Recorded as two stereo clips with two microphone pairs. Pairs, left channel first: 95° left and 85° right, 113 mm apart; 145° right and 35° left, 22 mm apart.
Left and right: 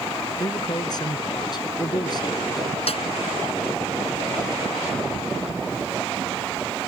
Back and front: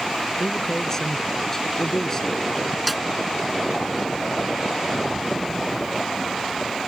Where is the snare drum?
120° left.